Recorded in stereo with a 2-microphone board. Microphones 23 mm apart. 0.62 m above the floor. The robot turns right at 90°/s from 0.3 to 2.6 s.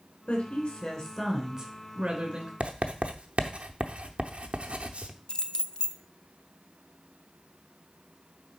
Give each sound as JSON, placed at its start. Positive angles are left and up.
{"t": 0.3, "sound": "a woman speaking", "azimuth_deg": 100, "distance_m": 3.0}
{"t": 2.6, "sound": "writing", "side_deg": -55, "distance_m": 0.7}
{"t": 5.3, "sound": "keys jangling", "side_deg": 40, "distance_m": 0.5}